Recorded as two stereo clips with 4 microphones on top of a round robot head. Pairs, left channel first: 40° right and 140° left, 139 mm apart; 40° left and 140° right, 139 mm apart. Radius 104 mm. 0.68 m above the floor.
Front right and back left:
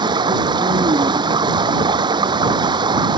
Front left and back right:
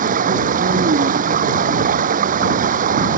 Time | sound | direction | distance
0.0 | running water | 165° right | ?